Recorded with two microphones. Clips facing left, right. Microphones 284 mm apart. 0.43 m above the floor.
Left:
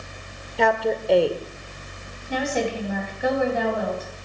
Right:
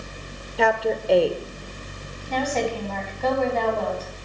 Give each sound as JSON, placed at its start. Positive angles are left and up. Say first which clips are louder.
{"t": 0.6, "sound": "a woman speaking", "louder": "even", "side_deg": 0, "distance_m": 1.1}
{"t": 2.3, "sound": "a woman speaking", "louder": "even", "side_deg": 10, "distance_m": 3.5}